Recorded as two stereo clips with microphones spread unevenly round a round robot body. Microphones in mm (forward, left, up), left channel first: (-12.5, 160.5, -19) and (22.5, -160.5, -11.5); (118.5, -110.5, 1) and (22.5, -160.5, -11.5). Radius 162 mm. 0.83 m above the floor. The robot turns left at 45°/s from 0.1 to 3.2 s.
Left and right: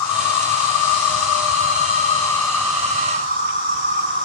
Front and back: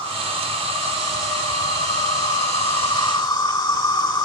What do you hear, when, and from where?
0.0 s an insect: 115° left, 1.6 m; by 4.3 s 25° right, 1.6 m